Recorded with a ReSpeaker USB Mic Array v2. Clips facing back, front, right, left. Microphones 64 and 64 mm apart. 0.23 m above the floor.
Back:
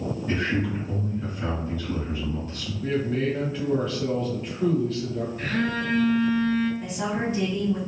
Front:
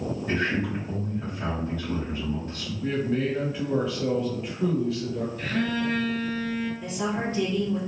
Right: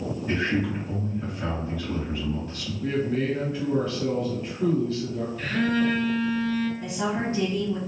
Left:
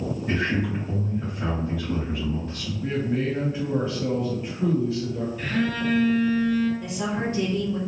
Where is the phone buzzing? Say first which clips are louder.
Back 1 dB, right 3 dB; 170° left, 1.2 m.